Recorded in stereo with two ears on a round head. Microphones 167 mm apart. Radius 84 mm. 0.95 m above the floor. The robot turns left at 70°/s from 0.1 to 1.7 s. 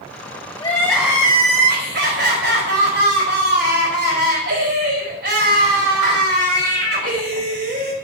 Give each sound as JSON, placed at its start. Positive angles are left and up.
{"t": 0.6, "sound": "crying", "azimuth_deg": 25, "distance_m": 4.5}